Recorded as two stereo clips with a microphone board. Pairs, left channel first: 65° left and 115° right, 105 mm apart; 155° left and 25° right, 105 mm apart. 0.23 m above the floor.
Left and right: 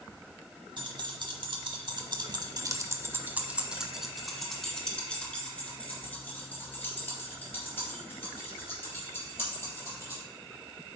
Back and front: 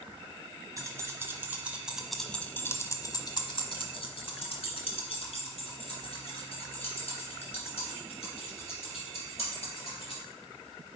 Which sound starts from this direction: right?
Keys jangling, at 0.8 s.